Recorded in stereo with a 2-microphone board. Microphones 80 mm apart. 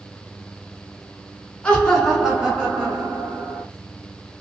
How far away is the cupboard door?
No cupboard door in this recording.